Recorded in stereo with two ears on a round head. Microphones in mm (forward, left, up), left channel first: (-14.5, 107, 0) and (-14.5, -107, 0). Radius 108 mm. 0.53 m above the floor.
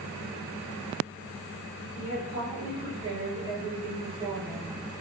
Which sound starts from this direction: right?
A woman speaking, at 1.9 s.